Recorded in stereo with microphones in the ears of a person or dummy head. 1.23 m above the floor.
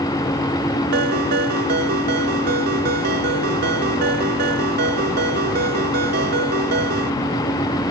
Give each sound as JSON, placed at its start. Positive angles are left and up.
{"t": 0.9, "sound": "a ringtone", "side_deg": -50}